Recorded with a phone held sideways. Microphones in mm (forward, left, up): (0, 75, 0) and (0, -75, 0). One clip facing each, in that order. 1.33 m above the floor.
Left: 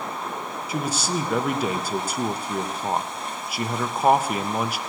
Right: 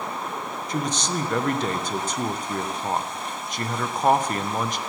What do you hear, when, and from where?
0.7 s a man speaking: 5° left (ahead or behind), 0.6 m